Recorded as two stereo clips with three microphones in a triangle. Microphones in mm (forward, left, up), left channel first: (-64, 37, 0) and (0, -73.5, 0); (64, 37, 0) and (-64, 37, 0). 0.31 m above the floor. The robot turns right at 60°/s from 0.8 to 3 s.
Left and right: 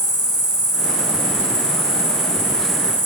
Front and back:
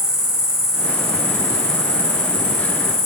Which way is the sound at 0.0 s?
95° left.